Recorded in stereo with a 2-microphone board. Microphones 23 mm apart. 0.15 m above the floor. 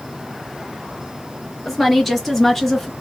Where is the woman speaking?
5° left (ahead or behind), 3 m; by 2.9 s 15° left (ahead or behind), 1.9 m.